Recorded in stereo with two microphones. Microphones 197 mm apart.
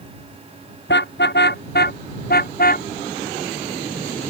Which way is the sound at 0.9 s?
55° left (ahead or behind).